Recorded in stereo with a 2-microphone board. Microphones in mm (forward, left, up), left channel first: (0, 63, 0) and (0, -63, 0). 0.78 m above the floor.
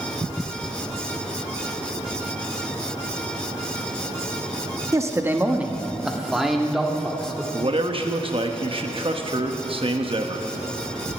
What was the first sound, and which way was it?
A man speaking, 25° right (ahead or behind).